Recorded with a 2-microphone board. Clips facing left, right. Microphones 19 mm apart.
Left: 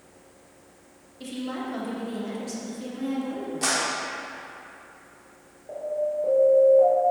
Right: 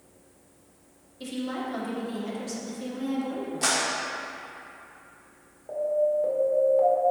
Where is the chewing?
No chewing in this recording.